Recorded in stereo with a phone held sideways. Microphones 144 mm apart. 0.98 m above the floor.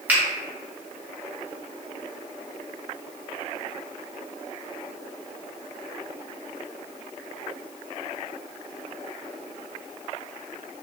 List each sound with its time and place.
0.1 s a finger snap: 10° right (ahead or behind), 0.8 m